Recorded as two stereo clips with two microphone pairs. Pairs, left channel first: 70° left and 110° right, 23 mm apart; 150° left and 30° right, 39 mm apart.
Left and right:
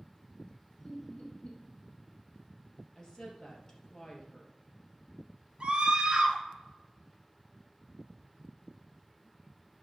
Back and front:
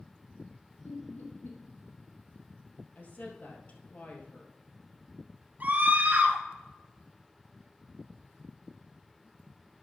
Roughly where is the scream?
Ahead right.